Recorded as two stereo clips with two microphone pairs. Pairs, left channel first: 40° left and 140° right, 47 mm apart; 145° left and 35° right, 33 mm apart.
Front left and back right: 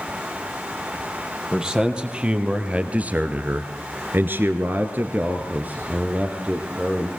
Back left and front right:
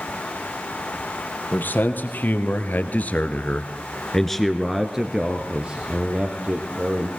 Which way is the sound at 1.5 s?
145° left.